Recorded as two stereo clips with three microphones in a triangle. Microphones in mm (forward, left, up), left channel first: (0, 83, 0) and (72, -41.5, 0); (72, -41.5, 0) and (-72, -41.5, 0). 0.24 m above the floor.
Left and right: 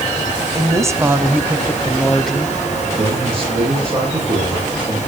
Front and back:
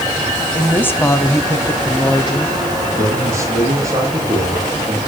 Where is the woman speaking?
65° right, 1.5 m; by 2.9 s 40° left, 2 m.